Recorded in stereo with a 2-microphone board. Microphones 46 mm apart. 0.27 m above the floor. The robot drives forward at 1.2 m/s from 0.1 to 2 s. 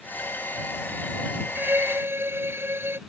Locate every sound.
1.6 s a violin: 55° right (ahead or behind); by 3.0 s 60° right (ahead or behind)